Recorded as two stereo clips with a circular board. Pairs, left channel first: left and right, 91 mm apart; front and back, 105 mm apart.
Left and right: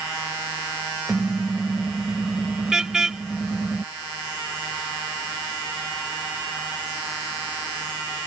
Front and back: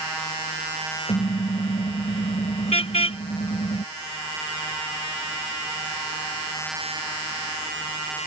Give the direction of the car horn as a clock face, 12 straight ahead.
12 o'clock.